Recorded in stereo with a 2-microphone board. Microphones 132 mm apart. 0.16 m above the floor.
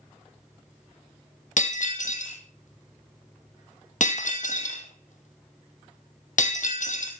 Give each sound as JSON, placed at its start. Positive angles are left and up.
{"t": 1.6, "sound": "breaking glass", "side_deg": 70, "distance_m": 1.9}